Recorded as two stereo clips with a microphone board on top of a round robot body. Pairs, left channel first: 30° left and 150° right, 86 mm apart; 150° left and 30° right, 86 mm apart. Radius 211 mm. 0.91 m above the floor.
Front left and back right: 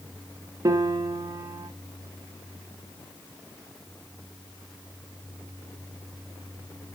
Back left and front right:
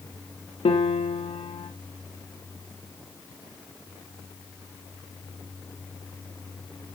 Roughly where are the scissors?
No scissors in this recording.